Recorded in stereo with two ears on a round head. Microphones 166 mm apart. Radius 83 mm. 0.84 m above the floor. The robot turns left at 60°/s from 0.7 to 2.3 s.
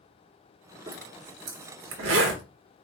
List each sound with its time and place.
0.9 s a zipper: 25° right (ahead or behind), 1.3 m; by 2.4 s 70° right (ahead or behind), 1.3 m